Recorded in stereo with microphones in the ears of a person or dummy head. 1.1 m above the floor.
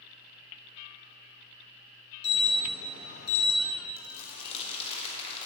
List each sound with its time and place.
2.2 s an alarm: 80° left, 4.5 m
4.0 s crumpling: 30° left (ahead or behind), 3 m